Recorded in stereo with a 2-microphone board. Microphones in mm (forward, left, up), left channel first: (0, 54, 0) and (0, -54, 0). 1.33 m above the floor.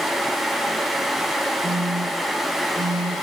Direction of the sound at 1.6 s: 75° right (ahead or behind).